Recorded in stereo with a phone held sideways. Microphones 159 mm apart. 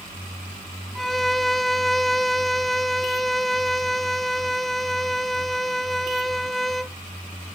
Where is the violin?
Centre (ahead or behind).